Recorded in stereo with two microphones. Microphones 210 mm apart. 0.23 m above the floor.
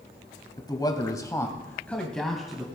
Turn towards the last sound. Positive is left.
turn(degrees=0)  # may be behind; listen again after turning